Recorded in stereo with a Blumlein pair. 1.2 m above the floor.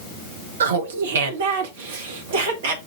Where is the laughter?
65° right, 1.1 m; by 2.8 s 60° right, 2.5 m.